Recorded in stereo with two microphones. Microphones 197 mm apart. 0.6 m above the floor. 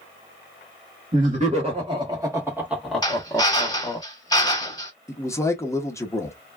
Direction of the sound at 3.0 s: 20° left (ahead or behind).